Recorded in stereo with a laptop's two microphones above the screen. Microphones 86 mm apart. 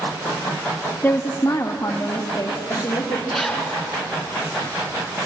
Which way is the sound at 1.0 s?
25° left (ahead or behind).